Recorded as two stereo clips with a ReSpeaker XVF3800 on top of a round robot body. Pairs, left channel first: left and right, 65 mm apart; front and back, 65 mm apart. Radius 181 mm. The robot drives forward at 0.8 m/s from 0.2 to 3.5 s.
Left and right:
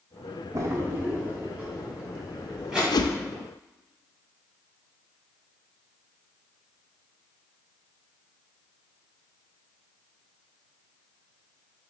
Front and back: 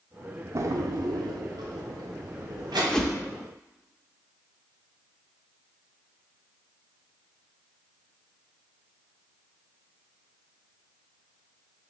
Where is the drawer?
135° right, 0.5 m; by 2.8 s 170° right, 2 m.